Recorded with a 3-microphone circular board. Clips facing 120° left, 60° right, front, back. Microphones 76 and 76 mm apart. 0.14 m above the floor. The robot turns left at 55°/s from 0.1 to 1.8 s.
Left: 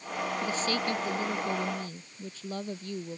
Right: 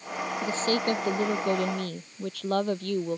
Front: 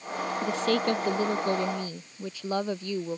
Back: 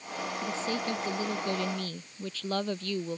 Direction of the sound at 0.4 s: Straight ahead.